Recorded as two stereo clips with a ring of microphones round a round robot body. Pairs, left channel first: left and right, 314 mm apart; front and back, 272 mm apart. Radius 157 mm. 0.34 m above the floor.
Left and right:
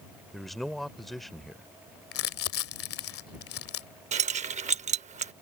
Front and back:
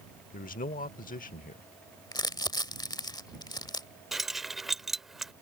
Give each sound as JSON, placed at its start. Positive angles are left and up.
{"t": 0.3, "sound": "a man speaking", "azimuth_deg": 0}
{"t": 2.1, "sound": "crumpling", "azimuth_deg": 70}
{"t": 4.1, "sound": "keys jangling", "azimuth_deg": -95}